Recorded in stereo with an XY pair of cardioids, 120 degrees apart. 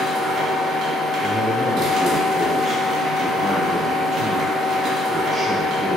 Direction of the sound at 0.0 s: 60° right.